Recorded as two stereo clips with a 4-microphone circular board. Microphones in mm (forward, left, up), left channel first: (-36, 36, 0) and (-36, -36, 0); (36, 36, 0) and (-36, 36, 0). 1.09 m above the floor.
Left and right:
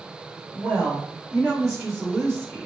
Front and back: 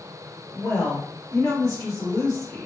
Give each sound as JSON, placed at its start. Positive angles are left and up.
{"t": 0.6, "sound": "a woman speaking", "azimuth_deg": -25, "distance_m": 0.9}